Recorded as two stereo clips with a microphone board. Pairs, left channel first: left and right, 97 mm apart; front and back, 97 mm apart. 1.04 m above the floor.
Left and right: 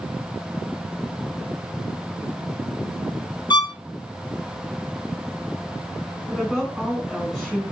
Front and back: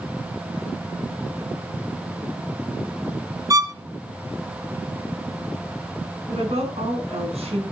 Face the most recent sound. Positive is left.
turn(degrees=180)